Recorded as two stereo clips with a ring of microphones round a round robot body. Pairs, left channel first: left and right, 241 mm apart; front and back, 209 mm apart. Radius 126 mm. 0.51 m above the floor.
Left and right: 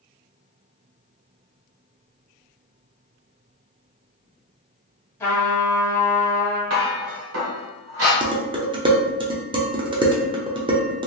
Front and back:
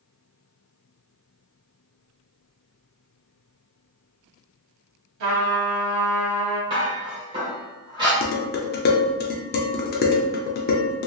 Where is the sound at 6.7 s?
110° right, 1.4 m.